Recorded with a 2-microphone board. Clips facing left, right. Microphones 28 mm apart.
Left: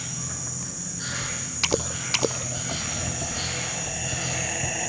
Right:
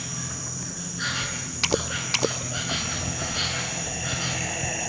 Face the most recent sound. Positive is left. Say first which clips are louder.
# right 1 dB
turn(degrees=-35)  # may be behind; listen again after turning